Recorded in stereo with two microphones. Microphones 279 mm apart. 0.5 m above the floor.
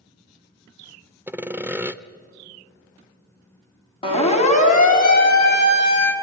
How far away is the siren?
About 3.5 m.